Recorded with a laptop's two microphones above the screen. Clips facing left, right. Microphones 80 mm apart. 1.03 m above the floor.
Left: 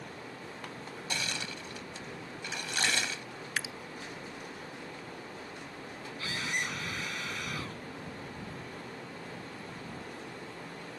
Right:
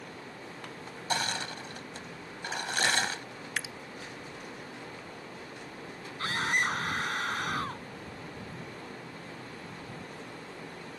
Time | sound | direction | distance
1.1 | crushing | 45° right (ahead or behind) | ?
3.6 | dripping | 5° left (ahead or behind) | ?
6.2 | a scream | 45° right (ahead or behind) | ?